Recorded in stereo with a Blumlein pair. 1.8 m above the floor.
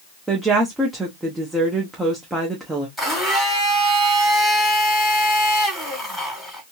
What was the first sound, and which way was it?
A woman speaking, 5° right.